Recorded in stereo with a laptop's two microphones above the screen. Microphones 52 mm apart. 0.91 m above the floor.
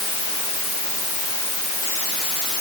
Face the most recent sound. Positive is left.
No sound to turn to.